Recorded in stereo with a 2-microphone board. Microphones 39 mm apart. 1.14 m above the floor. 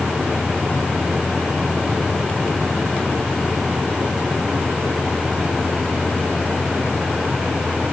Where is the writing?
I don't hear writing.